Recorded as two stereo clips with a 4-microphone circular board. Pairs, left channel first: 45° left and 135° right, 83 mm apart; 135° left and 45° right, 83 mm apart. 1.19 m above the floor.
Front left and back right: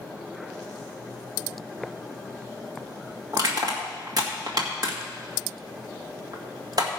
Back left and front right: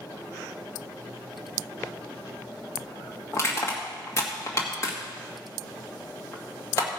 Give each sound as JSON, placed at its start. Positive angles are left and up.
{"t": 3.3, "sound": "crushing", "azimuth_deg": -170, "distance_m": 1.8}